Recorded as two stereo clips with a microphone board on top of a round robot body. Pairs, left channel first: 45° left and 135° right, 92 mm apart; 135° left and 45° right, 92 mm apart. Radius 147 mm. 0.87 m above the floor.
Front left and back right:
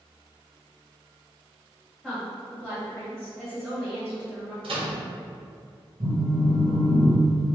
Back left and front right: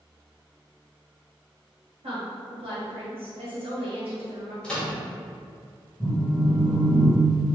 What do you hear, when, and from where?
2.0 s a woman speaking: 45° right, 1.9 m
4.6 s a microwave: 145° right, 1.5 m
6.0 s a phone buzzing: 125° right, 0.8 m